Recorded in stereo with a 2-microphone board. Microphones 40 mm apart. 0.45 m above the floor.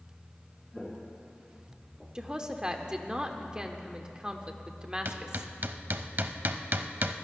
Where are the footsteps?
5° left (ahead or behind), 2.5 m; by 2.0 s 10° left (ahead or behind), 3.5 m.